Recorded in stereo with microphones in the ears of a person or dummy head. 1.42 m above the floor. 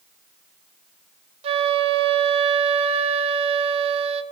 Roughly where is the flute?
Right.